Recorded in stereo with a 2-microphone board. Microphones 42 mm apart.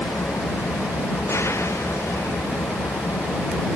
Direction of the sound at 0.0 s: 90° left.